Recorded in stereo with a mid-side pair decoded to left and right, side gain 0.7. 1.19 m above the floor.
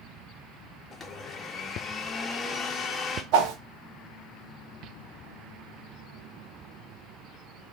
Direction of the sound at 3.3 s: 65° right.